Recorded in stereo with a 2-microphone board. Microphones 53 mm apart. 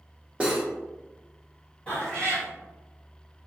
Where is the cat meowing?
25° left (ahead or behind), 1.3 m.